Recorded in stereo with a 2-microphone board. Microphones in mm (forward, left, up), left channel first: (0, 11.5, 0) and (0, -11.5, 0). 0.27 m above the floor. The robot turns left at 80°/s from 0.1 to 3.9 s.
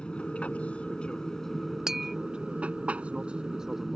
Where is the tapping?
25° right (ahead or behind); by 2.2 s 5° right (ahead or behind).